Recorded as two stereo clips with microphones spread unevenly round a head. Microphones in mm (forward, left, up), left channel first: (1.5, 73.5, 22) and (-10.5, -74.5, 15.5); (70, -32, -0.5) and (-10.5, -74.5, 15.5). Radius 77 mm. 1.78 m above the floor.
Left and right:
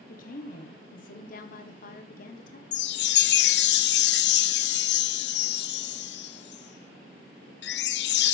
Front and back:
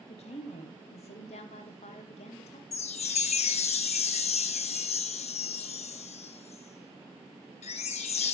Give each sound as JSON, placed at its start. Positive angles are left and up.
{"t": 0.1, "sound": "a woman speaking", "azimuth_deg": 50, "distance_m": 1.7}
{"t": 2.7, "sound": "a chime", "azimuth_deg": 70, "distance_m": 0.7}